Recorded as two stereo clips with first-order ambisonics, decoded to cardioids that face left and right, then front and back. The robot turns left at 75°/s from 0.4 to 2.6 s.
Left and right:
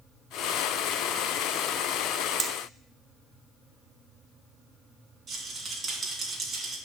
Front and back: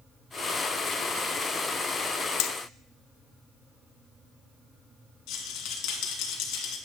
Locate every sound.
2.4 s hammering: 20° right, 0.6 m; by 2.5 s 30° right, 0.6 m
5.3 s a rattle: 20° right, 1.5 m